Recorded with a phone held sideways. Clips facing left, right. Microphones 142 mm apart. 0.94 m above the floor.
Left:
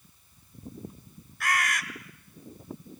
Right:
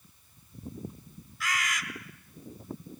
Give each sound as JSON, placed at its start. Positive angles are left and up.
{"t": 1.4, "sound": "a bird", "side_deg": 60, "distance_m": 1.8}